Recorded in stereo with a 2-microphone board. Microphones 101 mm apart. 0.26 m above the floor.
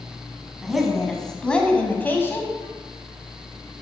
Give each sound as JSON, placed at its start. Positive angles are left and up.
{"t": 0.6, "sound": "a woman speaking", "side_deg": 0, "distance_m": 2.5}